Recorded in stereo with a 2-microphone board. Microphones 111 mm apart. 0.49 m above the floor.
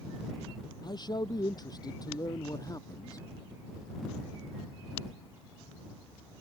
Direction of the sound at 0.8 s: 40° left (ahead or behind).